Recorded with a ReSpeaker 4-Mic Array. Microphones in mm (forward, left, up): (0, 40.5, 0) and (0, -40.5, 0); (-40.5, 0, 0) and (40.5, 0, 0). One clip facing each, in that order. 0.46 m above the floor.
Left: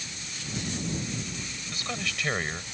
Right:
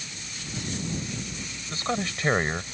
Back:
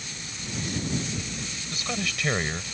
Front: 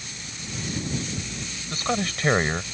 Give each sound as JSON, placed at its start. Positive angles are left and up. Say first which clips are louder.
{"t": 1.7, "sound": "a man speaking", "louder": "right 7 dB, front 6 dB", "azimuth_deg": -40}